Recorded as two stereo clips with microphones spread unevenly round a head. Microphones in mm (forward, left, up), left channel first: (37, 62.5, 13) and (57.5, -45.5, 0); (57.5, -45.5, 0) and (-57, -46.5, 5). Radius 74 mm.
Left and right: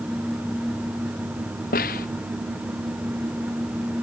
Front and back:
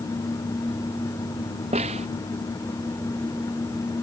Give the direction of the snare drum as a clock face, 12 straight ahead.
8 o'clock.